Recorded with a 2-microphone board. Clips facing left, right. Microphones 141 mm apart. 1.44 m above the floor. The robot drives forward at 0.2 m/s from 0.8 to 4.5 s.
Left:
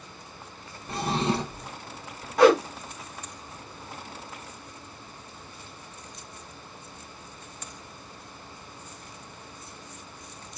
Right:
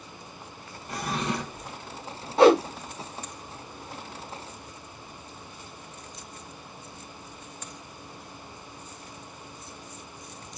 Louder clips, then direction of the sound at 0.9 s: Left 4 dB; 25° left (ahead or behind).